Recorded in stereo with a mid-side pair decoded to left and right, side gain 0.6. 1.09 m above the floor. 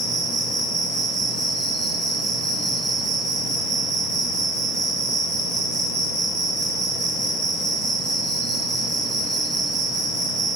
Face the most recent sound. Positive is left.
turn(degrees=-60)